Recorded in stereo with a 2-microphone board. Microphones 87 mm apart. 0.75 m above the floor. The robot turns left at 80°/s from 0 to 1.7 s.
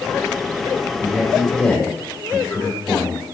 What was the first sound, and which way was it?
A man speaking, 145° right.